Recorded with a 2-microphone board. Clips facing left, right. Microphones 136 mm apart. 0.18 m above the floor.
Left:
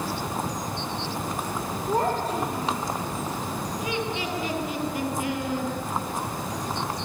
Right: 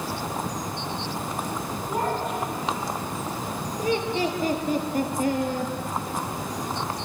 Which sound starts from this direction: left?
A child speaking, at 1.9 s.